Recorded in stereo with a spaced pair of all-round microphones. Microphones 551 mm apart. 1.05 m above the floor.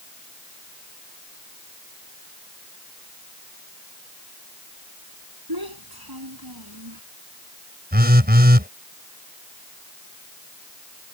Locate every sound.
5.5 s a child speaking: 40° right (ahead or behind)
7.9 s a phone buzzing: 15° right (ahead or behind)